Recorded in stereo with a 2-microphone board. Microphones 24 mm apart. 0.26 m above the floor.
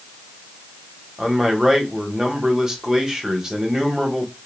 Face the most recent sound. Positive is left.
turn(degrees=-25)  # may be behind; listen again after turning